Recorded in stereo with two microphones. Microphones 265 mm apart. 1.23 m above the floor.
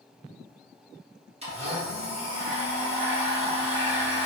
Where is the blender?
25° right (ahead or behind), 1.7 m.